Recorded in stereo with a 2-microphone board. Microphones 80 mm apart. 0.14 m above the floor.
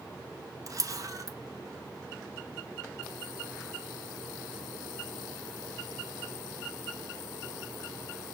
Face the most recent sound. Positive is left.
turn(degrees=-50)  # may be behind; listen again after turning